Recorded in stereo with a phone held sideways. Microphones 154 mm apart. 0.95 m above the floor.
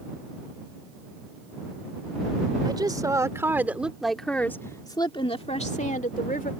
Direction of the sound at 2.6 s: 30° right (ahead or behind).